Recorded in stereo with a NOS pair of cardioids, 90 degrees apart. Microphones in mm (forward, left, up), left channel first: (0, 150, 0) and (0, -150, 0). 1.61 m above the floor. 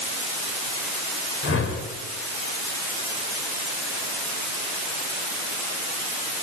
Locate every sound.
1.4 s a whoosh: 45° left, 7 m